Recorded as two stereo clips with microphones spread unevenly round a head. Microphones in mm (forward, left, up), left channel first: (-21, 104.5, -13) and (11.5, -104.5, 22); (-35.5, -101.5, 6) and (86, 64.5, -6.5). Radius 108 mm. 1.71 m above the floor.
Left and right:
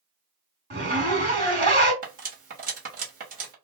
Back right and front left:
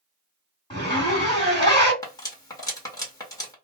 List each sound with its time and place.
0.7 s a zipper: 70° right, 1.8 m
2.0 s cutlery clinking: 60° right, 1.2 m